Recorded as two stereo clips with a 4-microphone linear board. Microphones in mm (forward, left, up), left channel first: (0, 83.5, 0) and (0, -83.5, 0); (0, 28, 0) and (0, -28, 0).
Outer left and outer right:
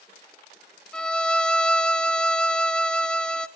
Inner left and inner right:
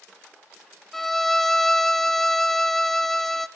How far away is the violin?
About 0.6 m.